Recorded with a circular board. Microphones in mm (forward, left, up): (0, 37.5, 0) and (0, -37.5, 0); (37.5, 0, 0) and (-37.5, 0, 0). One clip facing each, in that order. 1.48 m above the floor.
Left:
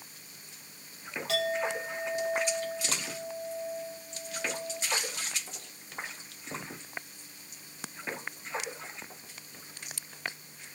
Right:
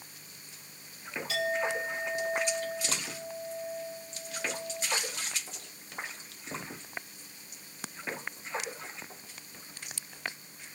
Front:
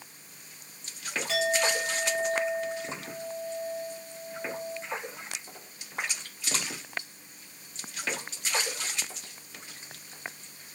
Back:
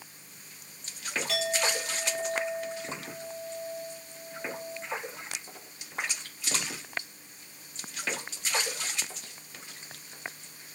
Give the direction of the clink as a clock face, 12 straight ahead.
9 o'clock.